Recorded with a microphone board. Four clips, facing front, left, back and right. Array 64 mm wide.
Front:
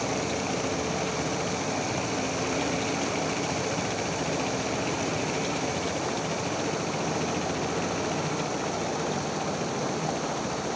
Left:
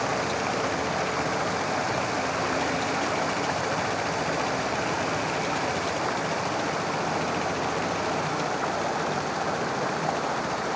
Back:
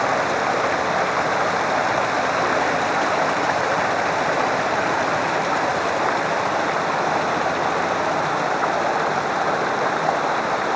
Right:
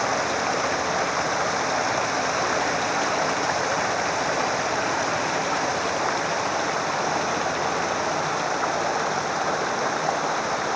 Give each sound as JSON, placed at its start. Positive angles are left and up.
{"t": 0.0, "sound": "running water", "azimuth_deg": -165}